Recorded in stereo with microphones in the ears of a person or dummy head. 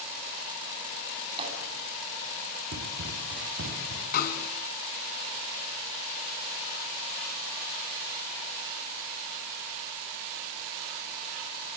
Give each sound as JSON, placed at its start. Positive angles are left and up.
{"t": 1.3, "sound": "a splash", "side_deg": -25, "distance_m": 9.0}
{"t": 2.7, "sound": "running footsteps", "side_deg": -75, "distance_m": 8.0}
{"t": 4.1, "sound": "a snare drum", "side_deg": 50, "distance_m": 3.0}